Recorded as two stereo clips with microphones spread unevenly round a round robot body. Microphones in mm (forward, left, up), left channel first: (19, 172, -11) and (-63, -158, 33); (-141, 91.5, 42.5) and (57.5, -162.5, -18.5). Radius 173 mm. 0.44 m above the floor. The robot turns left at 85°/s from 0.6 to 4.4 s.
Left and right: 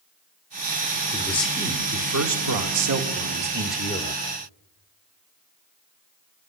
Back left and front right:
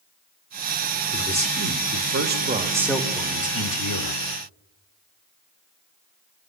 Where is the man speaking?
20° left, 1.8 m; by 4.2 s 120° left, 1.8 m.